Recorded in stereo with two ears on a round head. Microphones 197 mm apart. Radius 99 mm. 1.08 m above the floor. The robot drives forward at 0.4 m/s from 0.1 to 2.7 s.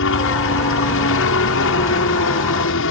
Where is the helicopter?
60° left (ahead or behind); by 2.9 s 65° left (ahead or behind).